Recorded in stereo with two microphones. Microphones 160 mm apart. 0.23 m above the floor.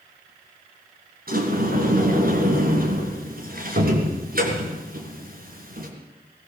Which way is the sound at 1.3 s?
65° right (ahead or behind).